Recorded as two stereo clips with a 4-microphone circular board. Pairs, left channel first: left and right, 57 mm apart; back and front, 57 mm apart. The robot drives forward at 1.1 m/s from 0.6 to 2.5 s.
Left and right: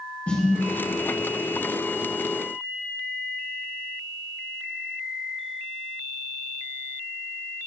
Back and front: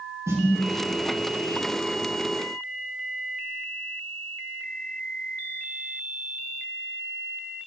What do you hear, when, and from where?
0.3 s a snare drum: 25° left, 4.5 m